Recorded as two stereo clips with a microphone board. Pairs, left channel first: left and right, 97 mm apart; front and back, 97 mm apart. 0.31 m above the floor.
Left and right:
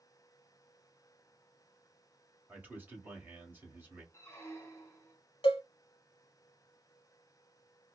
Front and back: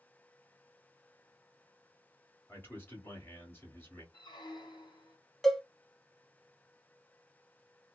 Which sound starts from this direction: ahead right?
A man speaking, at 2.5 s.